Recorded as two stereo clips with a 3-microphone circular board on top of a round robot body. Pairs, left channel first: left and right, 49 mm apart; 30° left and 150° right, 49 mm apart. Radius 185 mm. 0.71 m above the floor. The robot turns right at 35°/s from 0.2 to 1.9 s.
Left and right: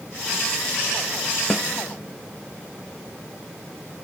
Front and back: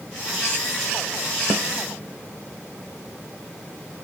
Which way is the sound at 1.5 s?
175° right.